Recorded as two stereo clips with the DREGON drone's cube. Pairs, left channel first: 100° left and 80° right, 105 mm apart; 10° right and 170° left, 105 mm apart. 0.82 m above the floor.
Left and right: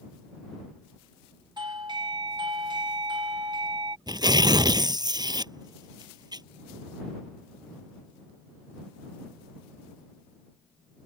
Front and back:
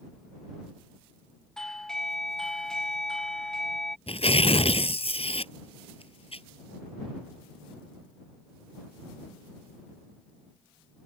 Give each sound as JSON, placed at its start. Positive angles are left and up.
{"t": 1.6, "sound": "a doorbell", "azimuth_deg": -95}
{"t": 4.1, "sound": "tearing paper", "azimuth_deg": -30}